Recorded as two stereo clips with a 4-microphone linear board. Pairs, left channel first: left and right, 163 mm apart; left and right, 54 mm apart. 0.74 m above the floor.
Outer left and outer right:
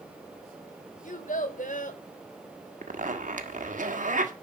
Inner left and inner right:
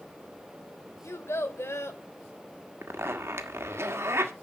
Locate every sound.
1.0 s a child speaking: 55° left (ahead or behind), 1.8 m
2.8 s a zipper: 50° right (ahead or behind), 1.4 m